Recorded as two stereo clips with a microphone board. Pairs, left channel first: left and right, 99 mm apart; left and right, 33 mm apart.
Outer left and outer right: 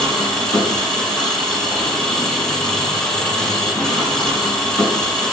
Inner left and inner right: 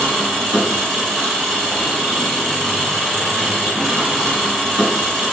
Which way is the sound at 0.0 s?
5° left (ahead or behind).